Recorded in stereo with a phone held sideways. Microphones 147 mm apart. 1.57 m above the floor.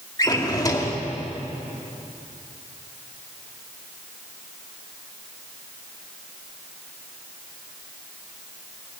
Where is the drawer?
25° left (ahead or behind), 2 m.